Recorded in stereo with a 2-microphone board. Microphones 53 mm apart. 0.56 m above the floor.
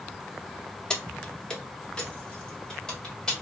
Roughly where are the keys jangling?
Centre.